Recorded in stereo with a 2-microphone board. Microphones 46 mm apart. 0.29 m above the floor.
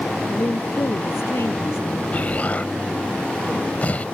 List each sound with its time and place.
0.3 s a woman speaking: 60° left (ahead or behind)
2.1 s an explosion: 30° left (ahead or behind)